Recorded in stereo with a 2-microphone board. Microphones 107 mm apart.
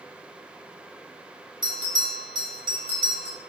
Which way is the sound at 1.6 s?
50° right (ahead or behind).